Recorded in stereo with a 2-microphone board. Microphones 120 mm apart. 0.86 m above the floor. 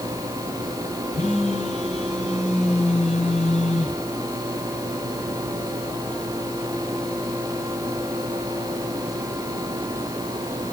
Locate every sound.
1.1 s a phone buzzing: 80° left, 8.5 m